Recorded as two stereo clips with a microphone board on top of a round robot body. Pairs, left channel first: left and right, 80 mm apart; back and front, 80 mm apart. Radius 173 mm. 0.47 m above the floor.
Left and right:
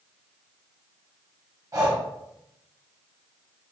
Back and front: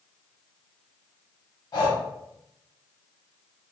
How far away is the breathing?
About 0.7 m.